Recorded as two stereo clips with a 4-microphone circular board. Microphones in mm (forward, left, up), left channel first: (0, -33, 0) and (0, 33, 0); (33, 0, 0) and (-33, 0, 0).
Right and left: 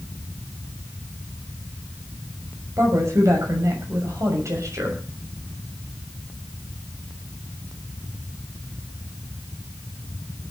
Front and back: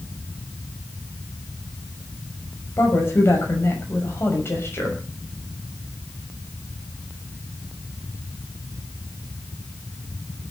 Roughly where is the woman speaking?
Ahead left.